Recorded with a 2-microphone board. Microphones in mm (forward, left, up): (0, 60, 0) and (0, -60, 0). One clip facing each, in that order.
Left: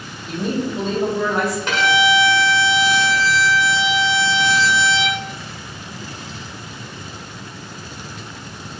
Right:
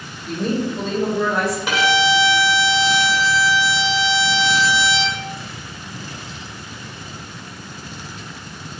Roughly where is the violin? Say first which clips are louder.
Even; centre.